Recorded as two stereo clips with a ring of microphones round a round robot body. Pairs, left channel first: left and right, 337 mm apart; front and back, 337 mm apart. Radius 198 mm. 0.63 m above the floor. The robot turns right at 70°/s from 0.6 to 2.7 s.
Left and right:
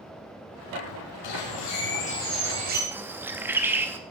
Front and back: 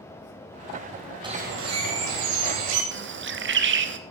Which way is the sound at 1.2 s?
100° left.